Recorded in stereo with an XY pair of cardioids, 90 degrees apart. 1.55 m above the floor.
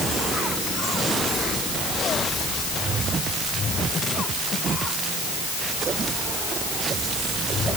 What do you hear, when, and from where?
Only background noise.